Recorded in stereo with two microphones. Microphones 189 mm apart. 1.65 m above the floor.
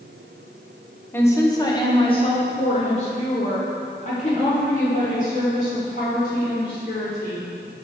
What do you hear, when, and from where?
1.1 s a woman speaking: 10° left (ahead or behind), 1.5 m; by 7.5 s 50° left (ahead or behind), 6 m